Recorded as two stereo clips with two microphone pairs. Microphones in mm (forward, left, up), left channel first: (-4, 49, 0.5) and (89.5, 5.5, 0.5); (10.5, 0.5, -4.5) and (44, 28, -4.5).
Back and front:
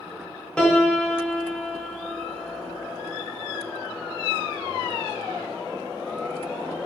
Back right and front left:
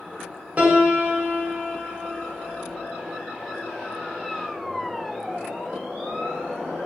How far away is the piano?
About 0.5 m.